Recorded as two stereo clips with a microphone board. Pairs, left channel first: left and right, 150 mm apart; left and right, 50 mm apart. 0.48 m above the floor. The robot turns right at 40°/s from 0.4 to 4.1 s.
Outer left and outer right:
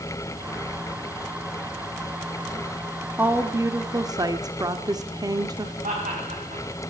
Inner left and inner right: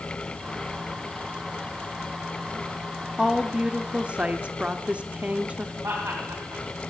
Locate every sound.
3.2 s a woman speaking: 15° right (ahead or behind), 0.7 m; by 5.7 s 25° right (ahead or behind), 0.7 m
5.8 s laughter: 65° right (ahead or behind), 3.5 m